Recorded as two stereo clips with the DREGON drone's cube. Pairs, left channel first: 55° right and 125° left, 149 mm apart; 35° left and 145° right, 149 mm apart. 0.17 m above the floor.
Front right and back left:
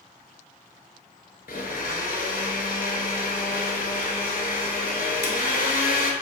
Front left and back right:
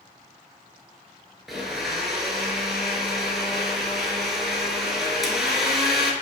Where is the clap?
I don't hear a clap.